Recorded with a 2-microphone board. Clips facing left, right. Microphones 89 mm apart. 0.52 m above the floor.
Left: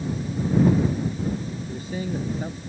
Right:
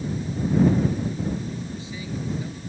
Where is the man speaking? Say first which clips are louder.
Left 4 dB; 50° left (ahead or behind).